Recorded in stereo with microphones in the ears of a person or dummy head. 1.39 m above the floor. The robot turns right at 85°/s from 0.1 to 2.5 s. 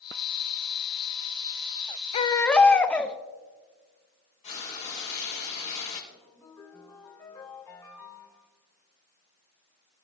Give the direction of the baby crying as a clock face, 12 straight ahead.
7 o'clock.